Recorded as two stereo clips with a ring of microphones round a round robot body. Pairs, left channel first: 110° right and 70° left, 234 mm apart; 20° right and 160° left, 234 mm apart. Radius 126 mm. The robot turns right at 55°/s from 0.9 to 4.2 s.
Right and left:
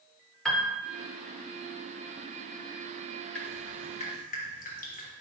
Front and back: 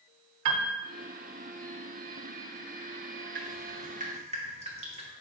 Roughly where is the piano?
Behind.